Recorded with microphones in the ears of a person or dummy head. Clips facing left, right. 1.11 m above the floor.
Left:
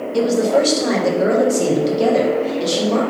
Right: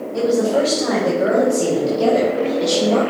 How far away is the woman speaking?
About 2.0 m.